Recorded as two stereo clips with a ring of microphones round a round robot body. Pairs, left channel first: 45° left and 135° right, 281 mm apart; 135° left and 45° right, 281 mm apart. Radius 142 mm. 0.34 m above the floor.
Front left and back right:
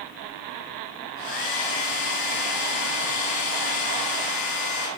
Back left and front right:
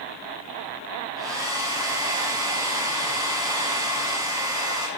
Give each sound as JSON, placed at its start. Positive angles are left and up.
{"t": 1.2, "sound": "a hair dryer", "azimuth_deg": 35, "distance_m": 3.0}